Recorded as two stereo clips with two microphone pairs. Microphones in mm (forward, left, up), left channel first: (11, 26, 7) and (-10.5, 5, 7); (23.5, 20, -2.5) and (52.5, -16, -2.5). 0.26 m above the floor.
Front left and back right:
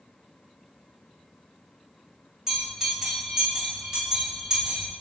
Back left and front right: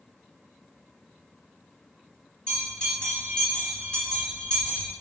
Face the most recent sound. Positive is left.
turn(degrees=170)